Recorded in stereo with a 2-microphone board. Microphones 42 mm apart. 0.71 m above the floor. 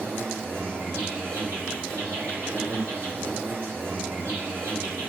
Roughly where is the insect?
Right.